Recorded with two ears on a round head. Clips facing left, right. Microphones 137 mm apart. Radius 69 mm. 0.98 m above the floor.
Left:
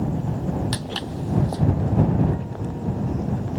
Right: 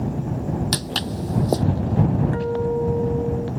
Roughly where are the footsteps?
Right.